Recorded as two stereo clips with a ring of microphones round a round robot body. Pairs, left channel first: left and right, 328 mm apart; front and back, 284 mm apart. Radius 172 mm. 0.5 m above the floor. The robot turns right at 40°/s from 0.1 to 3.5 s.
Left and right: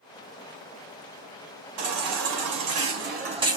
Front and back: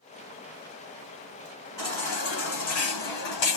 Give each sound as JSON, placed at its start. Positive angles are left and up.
{"t": 1.8, "sound": "a baby crying", "azimuth_deg": -80, "distance_m": 1.8}